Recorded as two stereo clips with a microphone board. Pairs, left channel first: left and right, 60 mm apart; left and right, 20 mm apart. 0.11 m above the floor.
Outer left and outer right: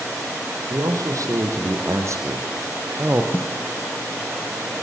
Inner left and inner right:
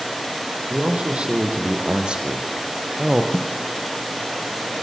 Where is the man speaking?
70° right (ahead or behind), 4.5 m; by 3.2 s 35° right (ahead or behind), 2 m.